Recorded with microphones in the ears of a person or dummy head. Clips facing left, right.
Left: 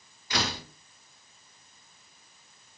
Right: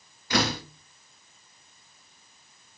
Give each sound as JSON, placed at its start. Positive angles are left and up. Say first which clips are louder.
{"t": 0.3, "sound": "a door slam", "louder": "right 6 dB", "side_deg": -55, "distance_m": 1.6}